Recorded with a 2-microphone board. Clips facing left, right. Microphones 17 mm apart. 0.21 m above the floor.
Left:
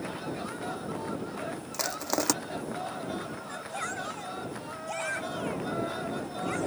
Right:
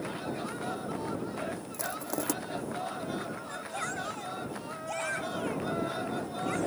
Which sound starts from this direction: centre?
A shout, at 3.5 s.